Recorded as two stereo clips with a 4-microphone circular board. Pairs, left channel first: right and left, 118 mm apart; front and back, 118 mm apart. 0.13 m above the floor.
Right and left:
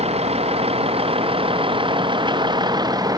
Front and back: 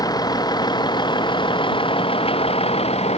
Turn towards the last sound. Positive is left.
turn(degrees=30)